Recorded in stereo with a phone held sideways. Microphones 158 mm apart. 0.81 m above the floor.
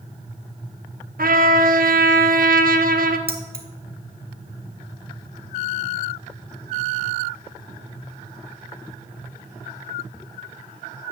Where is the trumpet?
65° right (ahead or behind), 0.6 m.